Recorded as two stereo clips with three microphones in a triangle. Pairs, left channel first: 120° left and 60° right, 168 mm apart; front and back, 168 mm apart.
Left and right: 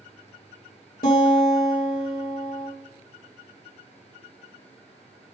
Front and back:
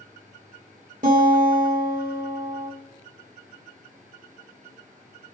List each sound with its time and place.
1.0 s a guitar: 145° left, 2.5 m